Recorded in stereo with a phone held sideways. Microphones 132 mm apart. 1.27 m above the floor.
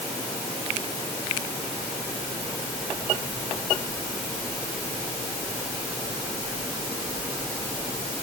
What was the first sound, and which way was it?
Only background noise.